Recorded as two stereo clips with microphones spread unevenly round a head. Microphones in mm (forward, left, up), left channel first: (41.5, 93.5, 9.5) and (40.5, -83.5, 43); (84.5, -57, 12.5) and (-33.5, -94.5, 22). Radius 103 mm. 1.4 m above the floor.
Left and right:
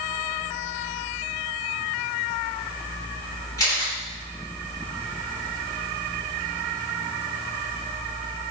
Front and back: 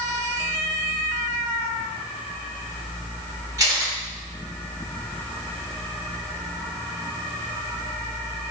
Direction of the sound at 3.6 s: 170° left.